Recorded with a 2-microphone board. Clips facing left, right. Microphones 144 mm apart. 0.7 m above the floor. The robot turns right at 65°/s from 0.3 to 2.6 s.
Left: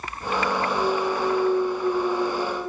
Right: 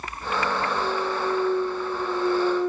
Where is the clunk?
10° right, 3.5 m; by 2.7 s 110° left, 3.5 m.